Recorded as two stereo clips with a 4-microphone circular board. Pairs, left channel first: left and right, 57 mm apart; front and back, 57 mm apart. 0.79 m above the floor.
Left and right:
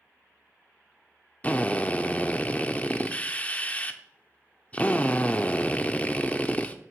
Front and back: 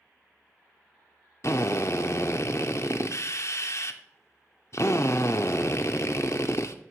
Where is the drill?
25° left, 0.6 m.